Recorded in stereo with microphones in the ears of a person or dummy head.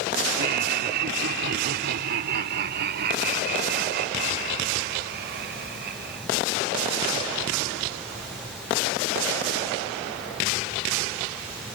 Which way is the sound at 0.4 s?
60° right (ahead or behind).